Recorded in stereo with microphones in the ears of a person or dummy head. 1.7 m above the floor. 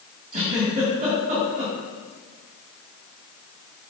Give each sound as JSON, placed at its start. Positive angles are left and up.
{"t": 0.3, "sound": "a giggle", "side_deg": -40, "distance_m": 1.9}